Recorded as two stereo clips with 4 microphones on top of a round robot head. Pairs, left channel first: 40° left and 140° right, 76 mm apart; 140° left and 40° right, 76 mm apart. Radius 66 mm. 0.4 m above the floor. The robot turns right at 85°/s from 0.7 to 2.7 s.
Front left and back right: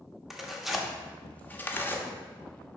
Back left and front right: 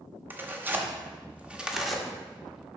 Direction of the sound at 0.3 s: 55° right.